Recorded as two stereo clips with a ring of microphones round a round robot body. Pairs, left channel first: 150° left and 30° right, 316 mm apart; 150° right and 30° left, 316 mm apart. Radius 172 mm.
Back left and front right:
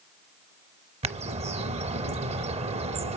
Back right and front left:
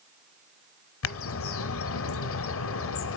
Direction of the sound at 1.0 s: 100° right.